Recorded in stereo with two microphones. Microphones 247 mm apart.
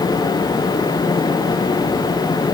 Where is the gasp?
I don't hear a gasp.